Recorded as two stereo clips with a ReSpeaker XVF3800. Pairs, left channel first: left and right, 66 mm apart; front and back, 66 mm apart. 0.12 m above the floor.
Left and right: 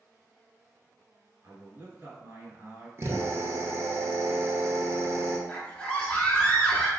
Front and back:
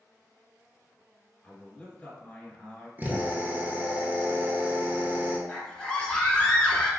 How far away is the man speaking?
About 1.5 m.